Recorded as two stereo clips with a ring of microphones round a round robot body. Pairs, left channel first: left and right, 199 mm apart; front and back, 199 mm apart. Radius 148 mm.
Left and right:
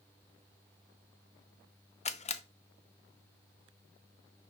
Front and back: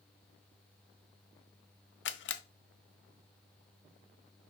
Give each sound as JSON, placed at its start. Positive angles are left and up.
{"t": 2.0, "sound": "a camera shutter", "azimuth_deg": 30, "distance_m": 0.5}